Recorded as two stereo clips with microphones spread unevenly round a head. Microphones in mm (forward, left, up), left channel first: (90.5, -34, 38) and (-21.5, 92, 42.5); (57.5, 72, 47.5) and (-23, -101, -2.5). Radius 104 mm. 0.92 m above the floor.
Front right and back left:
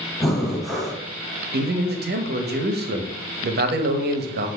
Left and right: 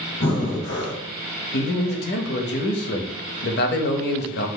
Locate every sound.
0.2 s breathing: 40° left, 1.2 m
1.5 s a man speaking: 110° left, 0.8 m